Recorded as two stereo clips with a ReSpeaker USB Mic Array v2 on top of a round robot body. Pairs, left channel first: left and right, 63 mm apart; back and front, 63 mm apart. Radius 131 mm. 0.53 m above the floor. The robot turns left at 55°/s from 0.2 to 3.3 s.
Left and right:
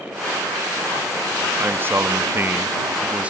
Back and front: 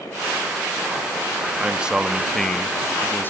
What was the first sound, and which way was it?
A man speaking, 55° right.